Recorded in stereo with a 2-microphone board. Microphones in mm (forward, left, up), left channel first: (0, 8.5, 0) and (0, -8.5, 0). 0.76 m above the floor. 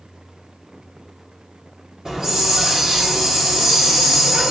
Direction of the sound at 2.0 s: 35° right (ahead or behind).